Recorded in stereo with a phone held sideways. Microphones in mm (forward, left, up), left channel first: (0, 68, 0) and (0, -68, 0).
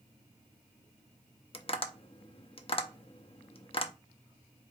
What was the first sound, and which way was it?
Tapping, 45° left (ahead or behind).